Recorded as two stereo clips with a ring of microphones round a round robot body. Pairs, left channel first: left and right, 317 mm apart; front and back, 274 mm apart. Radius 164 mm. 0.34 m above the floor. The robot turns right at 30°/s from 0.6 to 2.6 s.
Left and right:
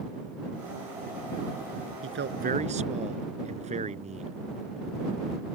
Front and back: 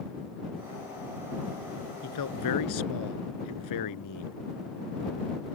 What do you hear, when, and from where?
2.0 s a man speaking: 40° right; by 4.4 s 20° right